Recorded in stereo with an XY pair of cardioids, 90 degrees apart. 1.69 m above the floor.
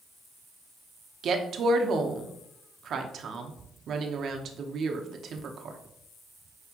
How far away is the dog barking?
No dog barking in this recording.